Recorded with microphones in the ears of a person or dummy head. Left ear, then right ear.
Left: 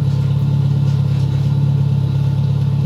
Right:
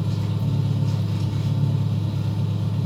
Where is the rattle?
I don't hear a rattle.